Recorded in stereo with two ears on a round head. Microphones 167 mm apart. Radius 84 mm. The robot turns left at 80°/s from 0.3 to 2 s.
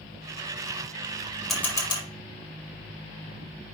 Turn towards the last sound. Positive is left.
turn(degrees=30)  # may be behind; listen again after turning